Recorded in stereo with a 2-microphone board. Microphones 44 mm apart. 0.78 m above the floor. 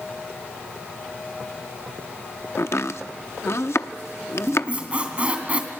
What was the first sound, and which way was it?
Chopping, 75° left (ahead or behind).